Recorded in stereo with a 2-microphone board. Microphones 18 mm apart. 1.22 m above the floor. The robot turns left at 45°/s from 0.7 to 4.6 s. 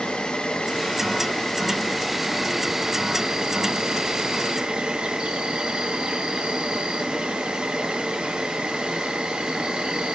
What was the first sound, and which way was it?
An insect, 70° left.